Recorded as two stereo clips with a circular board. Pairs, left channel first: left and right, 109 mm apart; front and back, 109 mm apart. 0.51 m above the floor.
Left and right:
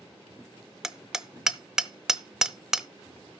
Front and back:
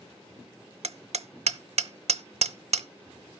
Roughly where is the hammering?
Behind.